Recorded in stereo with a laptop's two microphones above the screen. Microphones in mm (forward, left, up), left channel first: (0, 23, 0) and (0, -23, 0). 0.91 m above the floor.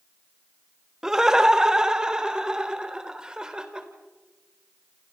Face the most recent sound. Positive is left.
turn(degrees=-15)  # may be behind; listen again after turning